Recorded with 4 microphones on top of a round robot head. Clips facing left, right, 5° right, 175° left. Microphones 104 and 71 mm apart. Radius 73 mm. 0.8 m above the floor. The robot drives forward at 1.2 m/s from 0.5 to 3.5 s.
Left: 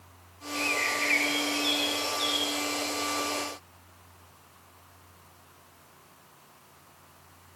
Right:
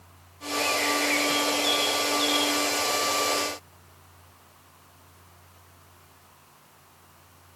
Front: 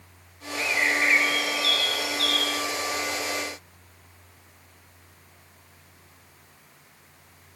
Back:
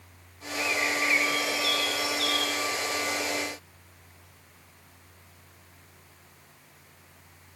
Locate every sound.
0.6 s a bird: 30° left; by 2.7 s 35° left